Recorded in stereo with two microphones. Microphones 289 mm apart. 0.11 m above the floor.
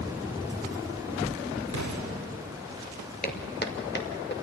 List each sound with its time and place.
1.7 s an explosion: 70° right (ahead or behind), 4.5 m
3.2 s footsteps: 30° left (ahead or behind), 2 m; by 4.3 s 35° left (ahead or behind), 3.5 m